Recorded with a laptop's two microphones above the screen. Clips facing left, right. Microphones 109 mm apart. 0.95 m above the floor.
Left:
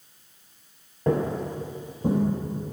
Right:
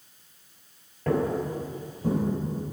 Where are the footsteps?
20° left (ahead or behind), 1.0 m; by 2.2 s 25° left (ahead or behind), 1.4 m.